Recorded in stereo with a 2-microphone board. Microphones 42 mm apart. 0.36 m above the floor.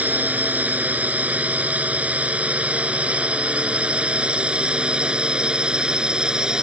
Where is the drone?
40° right (ahead or behind); by 6.6 s 20° right (ahead or behind).